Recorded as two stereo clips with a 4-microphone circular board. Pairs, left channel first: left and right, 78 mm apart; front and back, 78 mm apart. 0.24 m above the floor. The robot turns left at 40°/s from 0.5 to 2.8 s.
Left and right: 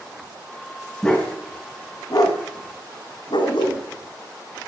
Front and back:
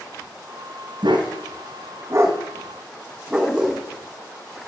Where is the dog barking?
170° left, 3 m; by 3.8 s 100° left, 3 m.